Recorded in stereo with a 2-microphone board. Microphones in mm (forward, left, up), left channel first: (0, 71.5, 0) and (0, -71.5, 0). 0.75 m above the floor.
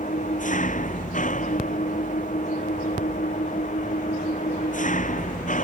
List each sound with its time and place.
0.0 s an engine running: 65° left (ahead or behind)